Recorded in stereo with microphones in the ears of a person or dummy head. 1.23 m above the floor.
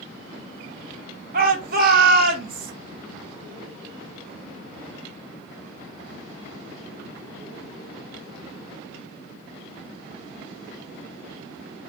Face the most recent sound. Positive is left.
turn(degrees=-50)  # may be behind; listen again after turning